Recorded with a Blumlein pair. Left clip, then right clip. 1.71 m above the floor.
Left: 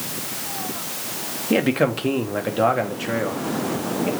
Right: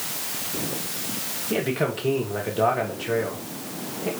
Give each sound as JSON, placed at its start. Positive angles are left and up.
{"t": 1.5, "sound": "a man speaking", "azimuth_deg": 70, "distance_m": 1.0}